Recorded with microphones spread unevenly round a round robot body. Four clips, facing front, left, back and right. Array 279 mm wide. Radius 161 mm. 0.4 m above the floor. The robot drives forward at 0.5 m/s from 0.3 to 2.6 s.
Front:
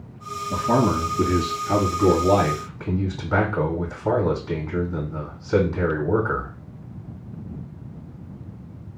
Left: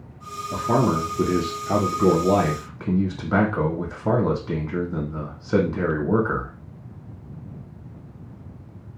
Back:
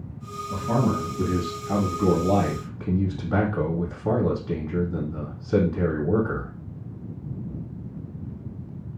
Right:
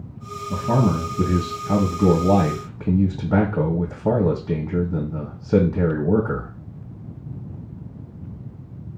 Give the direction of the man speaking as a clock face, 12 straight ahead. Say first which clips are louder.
Even, front 4 dB; 3 o'clock.